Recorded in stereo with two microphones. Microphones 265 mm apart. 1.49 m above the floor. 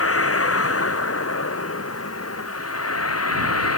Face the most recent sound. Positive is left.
turn(degrees=60)  # may be behind; listen again after turning